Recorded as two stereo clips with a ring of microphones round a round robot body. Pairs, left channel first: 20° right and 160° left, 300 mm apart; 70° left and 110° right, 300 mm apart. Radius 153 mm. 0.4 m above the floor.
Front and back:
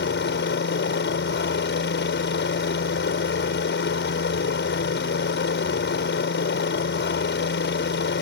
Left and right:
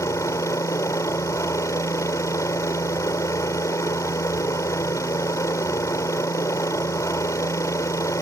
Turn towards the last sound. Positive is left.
turn(degrees=-5)